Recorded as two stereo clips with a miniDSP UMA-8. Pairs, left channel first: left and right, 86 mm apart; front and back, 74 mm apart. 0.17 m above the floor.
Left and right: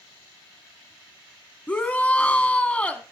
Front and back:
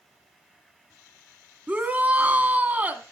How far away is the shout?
About 1.1 m.